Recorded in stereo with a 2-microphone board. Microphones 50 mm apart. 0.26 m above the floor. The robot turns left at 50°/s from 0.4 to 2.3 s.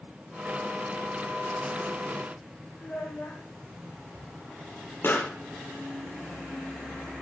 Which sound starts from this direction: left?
A pop, at 5.0 s.